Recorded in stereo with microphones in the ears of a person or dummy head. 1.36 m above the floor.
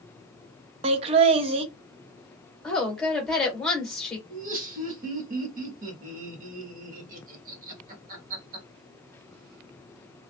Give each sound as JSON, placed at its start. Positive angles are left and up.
{"t": 0.8, "sound": "laughter", "side_deg": -35, "distance_m": 0.6}
{"t": 2.6, "sound": "a woman speaking", "side_deg": 5, "distance_m": 1.3}
{"t": 4.3, "sound": "laughter", "side_deg": -50, "distance_m": 1.3}